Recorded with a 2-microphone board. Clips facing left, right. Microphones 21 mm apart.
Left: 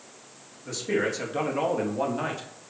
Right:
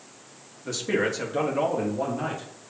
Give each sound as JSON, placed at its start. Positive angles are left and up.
{"t": 0.7, "sound": "a man speaking", "side_deg": -25, "distance_m": 0.8}